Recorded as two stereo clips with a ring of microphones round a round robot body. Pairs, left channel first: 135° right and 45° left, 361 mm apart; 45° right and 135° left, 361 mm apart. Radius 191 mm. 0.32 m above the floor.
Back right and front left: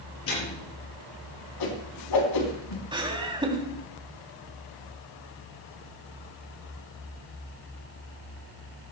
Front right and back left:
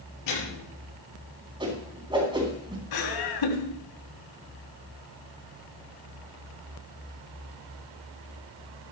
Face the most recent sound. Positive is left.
turn(degrees=-30)